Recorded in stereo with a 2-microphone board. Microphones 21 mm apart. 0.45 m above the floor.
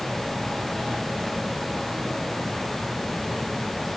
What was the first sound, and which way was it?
Only background noise.